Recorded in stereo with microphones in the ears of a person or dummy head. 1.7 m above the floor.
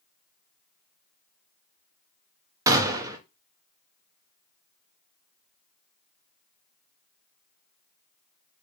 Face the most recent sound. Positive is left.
turn(degrees=-15)  # may be behind; listen again after turning